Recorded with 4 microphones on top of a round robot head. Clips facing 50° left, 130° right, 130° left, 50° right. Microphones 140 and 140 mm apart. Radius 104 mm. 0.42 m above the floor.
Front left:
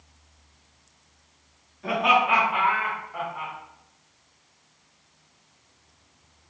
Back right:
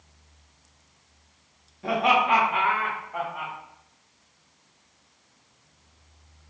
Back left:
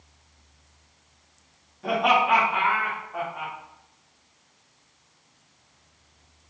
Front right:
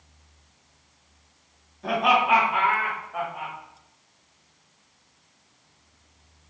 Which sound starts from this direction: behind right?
Laughter, at 1.8 s.